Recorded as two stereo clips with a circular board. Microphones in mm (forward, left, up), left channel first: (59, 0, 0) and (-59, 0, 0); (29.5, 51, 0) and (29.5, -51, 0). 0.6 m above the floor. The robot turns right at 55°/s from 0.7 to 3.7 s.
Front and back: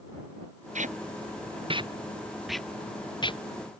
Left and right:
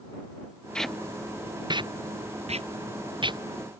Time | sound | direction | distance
0.8 | tape being pulled | 170° left | ?